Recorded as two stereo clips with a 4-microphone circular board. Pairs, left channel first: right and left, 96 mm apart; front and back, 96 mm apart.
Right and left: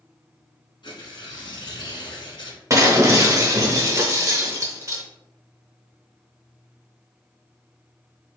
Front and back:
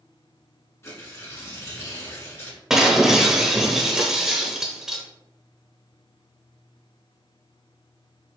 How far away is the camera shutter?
I don't hear a camera shutter.